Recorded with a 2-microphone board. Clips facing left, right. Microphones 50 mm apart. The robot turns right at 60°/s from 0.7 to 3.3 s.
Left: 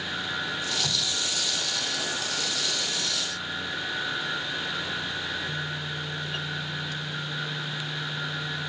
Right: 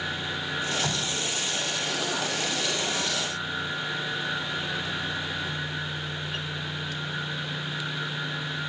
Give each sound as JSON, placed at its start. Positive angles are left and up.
{"t": 0.8, "sound": "dripping", "side_deg": -25, "distance_m": 1.2}